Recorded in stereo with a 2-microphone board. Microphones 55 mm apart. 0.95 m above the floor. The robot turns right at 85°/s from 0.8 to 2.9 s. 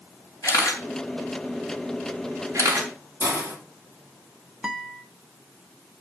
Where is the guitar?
10° right (ahead or behind), 0.9 m.